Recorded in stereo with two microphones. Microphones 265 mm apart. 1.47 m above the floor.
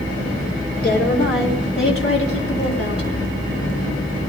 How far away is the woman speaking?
About 3.5 m.